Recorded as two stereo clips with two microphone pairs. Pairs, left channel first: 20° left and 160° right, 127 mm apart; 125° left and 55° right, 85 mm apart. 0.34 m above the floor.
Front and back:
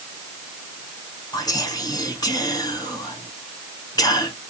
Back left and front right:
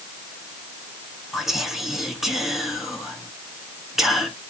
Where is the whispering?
30° left, 1.0 m.